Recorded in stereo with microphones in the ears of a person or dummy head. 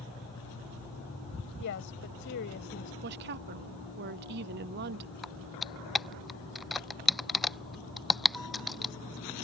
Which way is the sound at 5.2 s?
Centre (ahead or behind).